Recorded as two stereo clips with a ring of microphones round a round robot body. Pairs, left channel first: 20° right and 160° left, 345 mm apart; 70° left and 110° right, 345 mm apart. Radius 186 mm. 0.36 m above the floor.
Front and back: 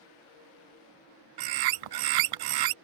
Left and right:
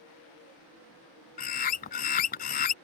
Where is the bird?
135° left.